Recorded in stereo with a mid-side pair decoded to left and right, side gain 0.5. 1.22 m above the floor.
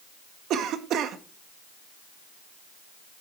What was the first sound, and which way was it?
A cough, 65° right.